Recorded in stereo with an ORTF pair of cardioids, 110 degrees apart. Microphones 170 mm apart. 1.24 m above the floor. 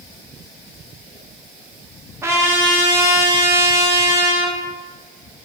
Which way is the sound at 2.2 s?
15° right.